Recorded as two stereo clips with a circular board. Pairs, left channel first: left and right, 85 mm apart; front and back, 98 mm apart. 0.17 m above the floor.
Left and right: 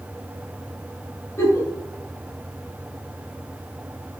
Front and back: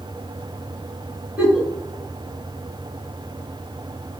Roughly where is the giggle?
Left.